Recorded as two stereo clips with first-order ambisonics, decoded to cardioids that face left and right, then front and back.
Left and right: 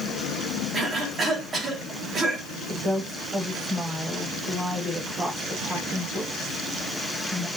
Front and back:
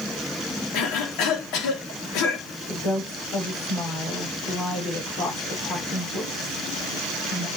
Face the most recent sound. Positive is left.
turn(degrees=-20)